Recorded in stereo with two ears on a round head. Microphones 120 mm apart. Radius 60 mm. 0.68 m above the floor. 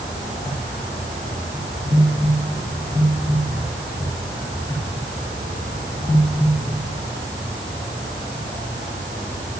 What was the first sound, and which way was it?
Only background noise.